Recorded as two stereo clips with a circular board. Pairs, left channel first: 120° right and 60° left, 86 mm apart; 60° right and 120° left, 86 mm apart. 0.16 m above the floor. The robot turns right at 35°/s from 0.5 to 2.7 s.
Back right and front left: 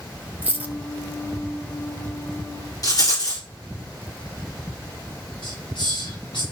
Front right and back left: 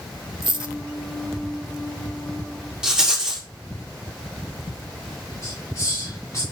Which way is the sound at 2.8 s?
160° right.